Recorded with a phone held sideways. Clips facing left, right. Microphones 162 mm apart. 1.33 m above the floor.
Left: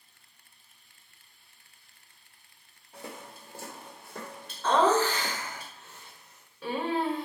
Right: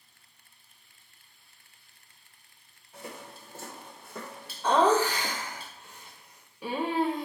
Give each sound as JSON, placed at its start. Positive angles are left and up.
{"t": 2.9, "sound": "footsteps", "side_deg": 25, "distance_m": 1.4}
{"t": 4.6, "sound": "laughter", "side_deg": -15, "distance_m": 0.7}